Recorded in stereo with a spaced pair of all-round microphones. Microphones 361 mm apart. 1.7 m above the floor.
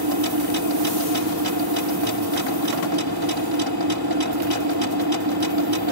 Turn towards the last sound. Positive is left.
turn(degrees=-80)